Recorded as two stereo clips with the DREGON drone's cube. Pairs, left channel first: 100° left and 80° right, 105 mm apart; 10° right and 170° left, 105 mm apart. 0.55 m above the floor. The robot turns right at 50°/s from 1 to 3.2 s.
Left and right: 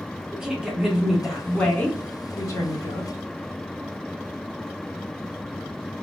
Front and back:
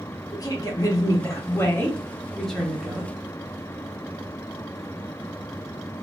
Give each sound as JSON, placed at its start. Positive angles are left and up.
{"t": 0.3, "sound": "a woman speaking", "azimuth_deg": 0, "distance_m": 0.9}